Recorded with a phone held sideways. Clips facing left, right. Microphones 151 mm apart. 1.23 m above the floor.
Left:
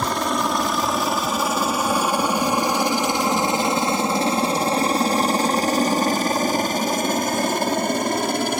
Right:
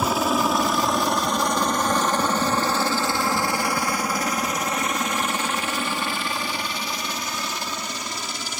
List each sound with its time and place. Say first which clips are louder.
0.0 s a helicopter: right 1 dB; 5° right (ahead or behind); by 8.6 s 60° left (ahead or behind)